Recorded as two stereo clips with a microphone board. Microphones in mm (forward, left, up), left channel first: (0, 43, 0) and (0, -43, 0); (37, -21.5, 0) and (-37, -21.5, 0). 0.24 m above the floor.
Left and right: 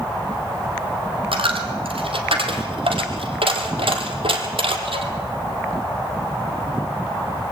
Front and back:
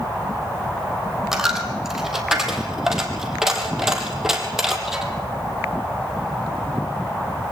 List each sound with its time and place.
1.3 s a dropped coin: 95° right, 3 m